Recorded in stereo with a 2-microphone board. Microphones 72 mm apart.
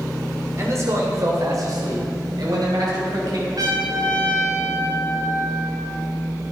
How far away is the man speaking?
About 2.5 m.